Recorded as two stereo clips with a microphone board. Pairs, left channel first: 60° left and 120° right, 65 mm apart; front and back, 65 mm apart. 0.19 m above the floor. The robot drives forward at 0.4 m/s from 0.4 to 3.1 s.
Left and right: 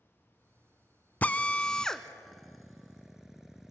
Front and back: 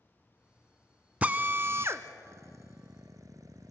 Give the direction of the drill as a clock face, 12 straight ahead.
8 o'clock.